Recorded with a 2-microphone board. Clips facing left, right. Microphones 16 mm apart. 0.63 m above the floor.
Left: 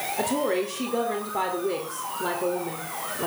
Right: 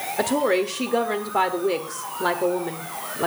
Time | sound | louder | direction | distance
0.2 | a woman speaking | right 5 dB | 30° right (ahead or behind) | 1.4 m